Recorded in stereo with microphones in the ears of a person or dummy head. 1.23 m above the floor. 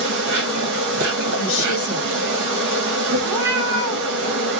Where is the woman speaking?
70° left (ahead or behind), 0.9 m.